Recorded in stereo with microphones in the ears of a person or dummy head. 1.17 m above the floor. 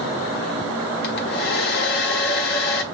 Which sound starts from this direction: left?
A hair dryer, at 1.0 s.